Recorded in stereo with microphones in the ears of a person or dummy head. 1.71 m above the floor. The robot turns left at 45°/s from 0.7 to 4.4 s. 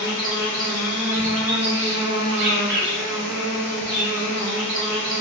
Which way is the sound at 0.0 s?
25° left.